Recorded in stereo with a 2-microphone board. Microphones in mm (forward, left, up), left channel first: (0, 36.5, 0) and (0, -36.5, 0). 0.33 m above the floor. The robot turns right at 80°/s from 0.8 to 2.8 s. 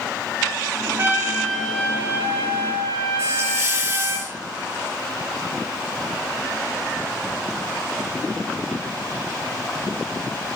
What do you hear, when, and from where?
1.0 s a trumpet: 45° right, 2.5 m; by 4.2 s 100° left, 2.5 m
3.2 s a hiss: 35° right (ahead or behind), 2.5 m